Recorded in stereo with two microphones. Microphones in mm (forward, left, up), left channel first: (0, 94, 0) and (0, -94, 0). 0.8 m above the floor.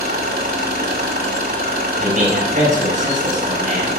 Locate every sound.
0.0 s an engine running: 55° right (ahead or behind), 2.5 m
2.0 s a man speaking: 45° right (ahead or behind), 6.5 m